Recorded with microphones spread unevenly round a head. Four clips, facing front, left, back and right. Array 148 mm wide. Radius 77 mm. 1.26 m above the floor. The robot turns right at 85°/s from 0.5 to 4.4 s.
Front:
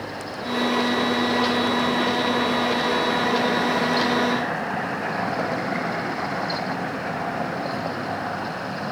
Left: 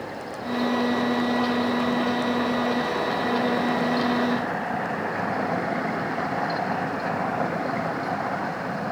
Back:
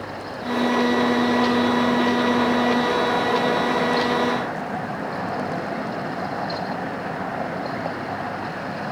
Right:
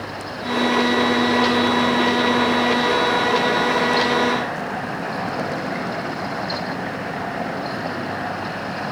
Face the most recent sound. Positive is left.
No sound to turn to.